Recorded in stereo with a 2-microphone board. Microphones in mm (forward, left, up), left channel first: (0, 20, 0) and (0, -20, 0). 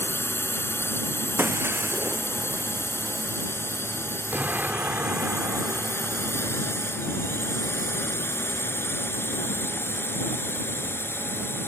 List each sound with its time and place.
0.0 s a drone: 80° left; by 11.7 s 75° left (ahead or behind)
1.4 s breaking glass: 65° right (ahead or behind)
4.3 s an explosion: 45° right (ahead or behind)